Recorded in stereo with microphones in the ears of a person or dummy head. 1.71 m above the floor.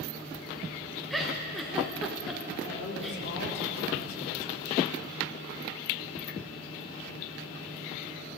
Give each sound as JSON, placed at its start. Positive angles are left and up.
{"t": 1.1, "sound": "a giggle", "side_deg": 0, "distance_m": 1.2}
{"t": 2.6, "sound": "a woman speaking", "side_deg": 60, "distance_m": 3.5}